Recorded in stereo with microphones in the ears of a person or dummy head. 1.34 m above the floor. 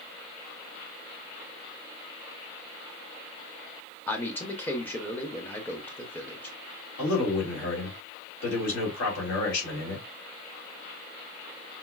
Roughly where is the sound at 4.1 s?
Centre.